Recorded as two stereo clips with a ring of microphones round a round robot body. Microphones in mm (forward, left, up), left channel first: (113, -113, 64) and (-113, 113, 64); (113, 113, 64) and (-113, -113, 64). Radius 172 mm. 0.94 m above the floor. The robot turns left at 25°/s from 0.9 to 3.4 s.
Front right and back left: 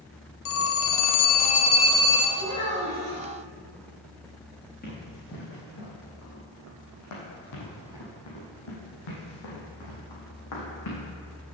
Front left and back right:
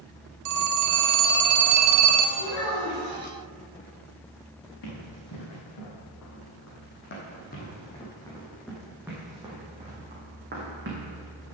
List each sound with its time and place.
0.5 s a phone ringing: 95° right, 0.9 m; by 2.3 s 130° right, 0.9 m
2.4 s a child speaking: 35° left, 3 m; by 3.2 s 15° left, 3 m
4.8 s running footsteps: 20° left, 3.5 m; by 11.1 s 80° right, 3.5 m